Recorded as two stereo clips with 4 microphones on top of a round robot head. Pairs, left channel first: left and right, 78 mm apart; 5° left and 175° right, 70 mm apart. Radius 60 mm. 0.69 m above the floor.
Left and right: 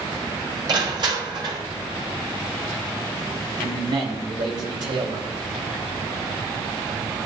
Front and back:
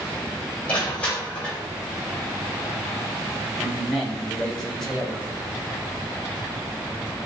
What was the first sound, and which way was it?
Crushing, 65° right.